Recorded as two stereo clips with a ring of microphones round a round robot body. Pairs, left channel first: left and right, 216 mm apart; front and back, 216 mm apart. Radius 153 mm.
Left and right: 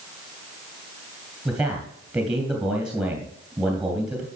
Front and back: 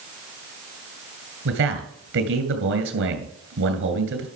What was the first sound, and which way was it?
A man speaking, 175° right.